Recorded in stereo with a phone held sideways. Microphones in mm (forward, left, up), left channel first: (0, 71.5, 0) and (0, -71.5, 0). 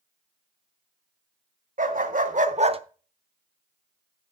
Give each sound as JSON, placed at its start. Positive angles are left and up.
{"t": 1.8, "sound": "a dog barking", "side_deg": -75, "distance_m": 1.5}